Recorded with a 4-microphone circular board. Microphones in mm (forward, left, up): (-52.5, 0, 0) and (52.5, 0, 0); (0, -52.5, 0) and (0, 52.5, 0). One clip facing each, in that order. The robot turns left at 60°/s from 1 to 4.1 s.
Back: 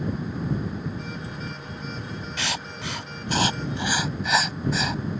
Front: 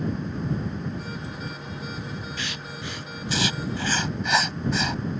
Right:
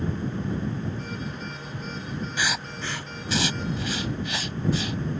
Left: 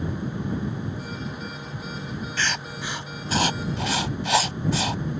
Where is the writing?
165° right; by 5.0 s 90° left.